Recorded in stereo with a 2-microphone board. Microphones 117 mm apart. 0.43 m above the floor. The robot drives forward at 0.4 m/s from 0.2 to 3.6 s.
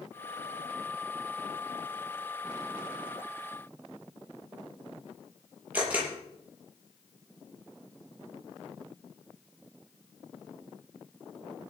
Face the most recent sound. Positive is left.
turn(degrees=-15)  # may be behind; listen again after turning